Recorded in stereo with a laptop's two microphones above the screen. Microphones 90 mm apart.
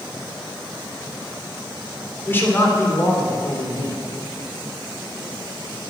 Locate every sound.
2.2 s a man speaking: 25° left (ahead or behind), 3 m; by 4.0 s 50° left (ahead or behind), 3 m